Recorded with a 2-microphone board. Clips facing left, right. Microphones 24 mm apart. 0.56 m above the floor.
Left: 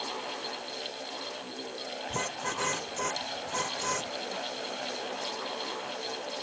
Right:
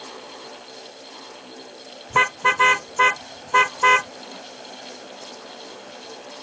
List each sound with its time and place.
2.1 s a car horn: 60° right (ahead or behind); by 4.1 s 70° right (ahead or behind)